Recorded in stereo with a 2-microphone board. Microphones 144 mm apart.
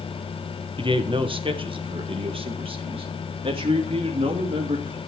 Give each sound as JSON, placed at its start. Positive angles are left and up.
{"t": 0.8, "sound": "a man speaking", "side_deg": -35, "distance_m": 1.1}